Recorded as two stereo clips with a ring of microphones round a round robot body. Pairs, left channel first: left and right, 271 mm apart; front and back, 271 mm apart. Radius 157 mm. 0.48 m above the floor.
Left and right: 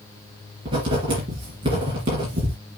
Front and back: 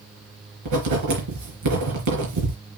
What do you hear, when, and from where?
0.7 s writing: 165° right, 4 m